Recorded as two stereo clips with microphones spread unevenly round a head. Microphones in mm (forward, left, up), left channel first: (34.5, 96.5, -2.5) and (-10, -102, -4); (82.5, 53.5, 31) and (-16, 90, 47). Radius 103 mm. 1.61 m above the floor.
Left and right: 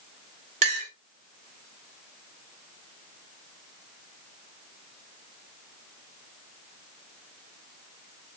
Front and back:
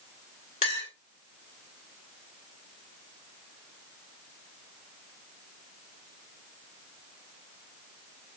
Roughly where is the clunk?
I don't hear a clunk.